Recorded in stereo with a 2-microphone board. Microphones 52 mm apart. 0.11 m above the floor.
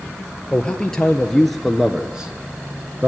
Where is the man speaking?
15° left (ahead or behind), 2.5 m; by 3.1 s 35° right (ahead or behind), 1.8 m.